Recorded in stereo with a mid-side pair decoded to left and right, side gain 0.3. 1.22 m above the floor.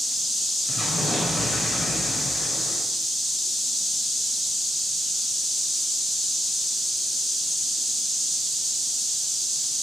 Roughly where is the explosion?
Ahead left.